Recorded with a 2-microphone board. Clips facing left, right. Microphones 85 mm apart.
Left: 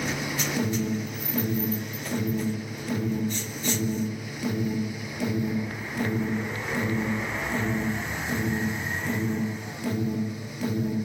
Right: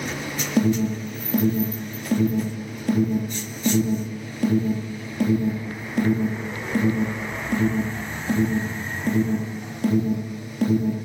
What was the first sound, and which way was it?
An alarm, 50° right (ahead or behind).